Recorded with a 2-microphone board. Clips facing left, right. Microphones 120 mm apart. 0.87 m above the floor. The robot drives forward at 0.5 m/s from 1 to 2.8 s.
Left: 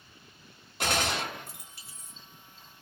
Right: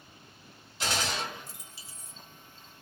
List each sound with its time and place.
0.8 s a gunshot: 55° left (ahead or behind), 1.0 m